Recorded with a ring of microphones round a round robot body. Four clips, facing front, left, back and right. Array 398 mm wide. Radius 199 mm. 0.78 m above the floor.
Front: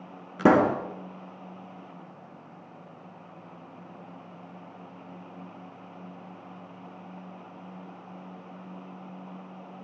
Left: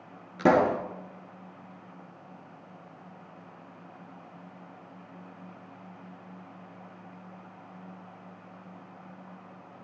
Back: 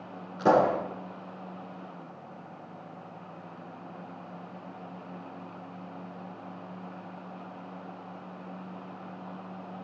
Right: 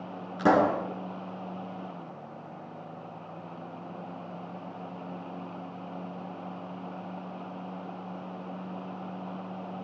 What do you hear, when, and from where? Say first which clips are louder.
0.4 s a pop: even, front 2 dB; 10° left, 2.5 m